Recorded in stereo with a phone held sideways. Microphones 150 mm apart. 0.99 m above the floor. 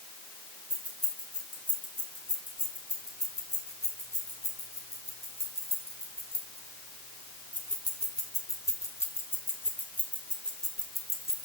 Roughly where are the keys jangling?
Left.